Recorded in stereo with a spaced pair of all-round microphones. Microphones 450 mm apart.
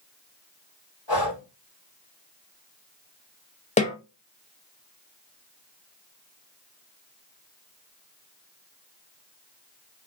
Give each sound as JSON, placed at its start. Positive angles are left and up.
{"t": 1.1, "sound": "breathing", "side_deg": 65, "distance_m": 1.3}
{"t": 3.8, "sound": "a snare drum", "side_deg": 15, "distance_m": 0.6}